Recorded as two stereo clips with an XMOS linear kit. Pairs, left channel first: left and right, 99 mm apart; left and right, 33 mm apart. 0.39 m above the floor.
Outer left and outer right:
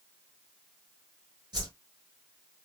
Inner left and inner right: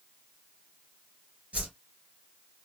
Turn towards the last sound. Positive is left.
turn(degrees=-45)  # may be behind; listen again after turning